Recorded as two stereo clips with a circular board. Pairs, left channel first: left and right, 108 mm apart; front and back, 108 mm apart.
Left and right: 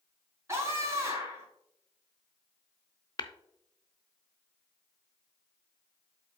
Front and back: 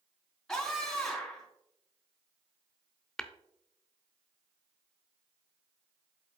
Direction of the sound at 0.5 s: 80° right.